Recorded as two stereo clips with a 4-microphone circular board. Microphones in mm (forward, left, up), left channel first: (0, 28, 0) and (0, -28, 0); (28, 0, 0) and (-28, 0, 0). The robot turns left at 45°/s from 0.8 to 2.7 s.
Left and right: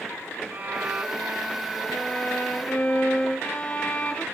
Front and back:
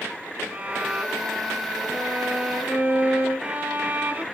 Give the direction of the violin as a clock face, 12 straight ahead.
4 o'clock.